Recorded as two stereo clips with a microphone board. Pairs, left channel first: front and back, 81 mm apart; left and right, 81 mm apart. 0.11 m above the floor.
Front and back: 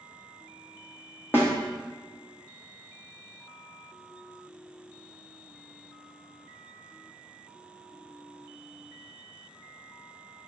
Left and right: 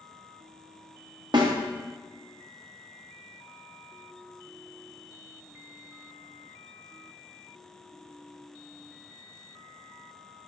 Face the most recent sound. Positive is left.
turn(degrees=-65)